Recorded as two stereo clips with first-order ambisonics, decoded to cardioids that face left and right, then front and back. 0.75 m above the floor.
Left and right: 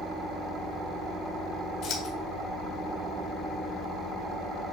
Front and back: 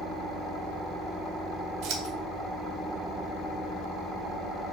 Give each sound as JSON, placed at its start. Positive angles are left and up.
{"t": 1.8, "sound": "scissors", "azimuth_deg": 130, "distance_m": 2.0}